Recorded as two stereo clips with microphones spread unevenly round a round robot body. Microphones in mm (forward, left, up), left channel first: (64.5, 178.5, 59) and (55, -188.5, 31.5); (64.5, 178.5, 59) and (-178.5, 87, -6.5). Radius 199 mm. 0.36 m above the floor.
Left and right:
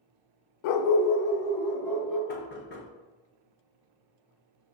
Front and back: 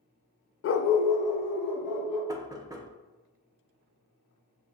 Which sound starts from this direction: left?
A dog barking, at 0.6 s.